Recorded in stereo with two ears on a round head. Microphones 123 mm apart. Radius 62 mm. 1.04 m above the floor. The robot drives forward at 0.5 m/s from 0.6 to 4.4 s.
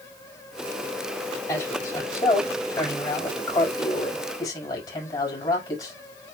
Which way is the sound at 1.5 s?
25° left (ahead or behind).